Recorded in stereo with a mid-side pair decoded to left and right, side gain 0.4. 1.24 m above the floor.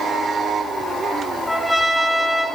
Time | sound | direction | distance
1.5 | a trumpet | straight ahead | 2.5 m